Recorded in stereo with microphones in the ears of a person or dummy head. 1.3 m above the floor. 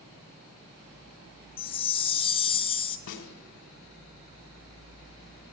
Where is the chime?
30° left (ahead or behind), 0.6 m.